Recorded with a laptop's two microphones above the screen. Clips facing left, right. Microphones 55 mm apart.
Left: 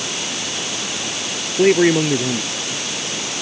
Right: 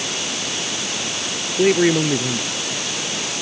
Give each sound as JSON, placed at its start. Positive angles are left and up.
{"t": 1.6, "sound": "a man speaking", "side_deg": 15}